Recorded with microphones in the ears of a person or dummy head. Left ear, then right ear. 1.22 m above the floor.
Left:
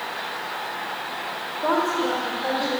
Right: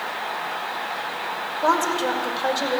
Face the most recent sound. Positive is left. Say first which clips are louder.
# right 2 dB
turn(degrees=-85)